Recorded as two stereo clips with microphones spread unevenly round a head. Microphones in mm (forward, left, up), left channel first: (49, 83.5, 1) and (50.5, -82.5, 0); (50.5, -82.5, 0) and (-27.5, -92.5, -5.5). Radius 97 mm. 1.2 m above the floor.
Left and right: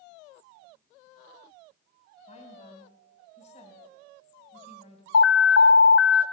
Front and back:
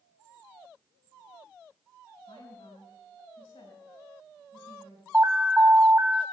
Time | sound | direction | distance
2.3 | a woman speaking | 45° left | 4.5 m
5.1 | an alarm | 110° left | 0.5 m